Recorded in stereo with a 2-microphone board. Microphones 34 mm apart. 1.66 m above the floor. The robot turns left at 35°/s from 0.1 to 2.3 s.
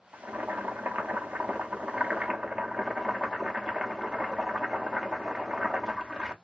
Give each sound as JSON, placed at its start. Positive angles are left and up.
{"t": 0.1, "sound": "boiling", "azimuth_deg": -75, "distance_m": 0.6}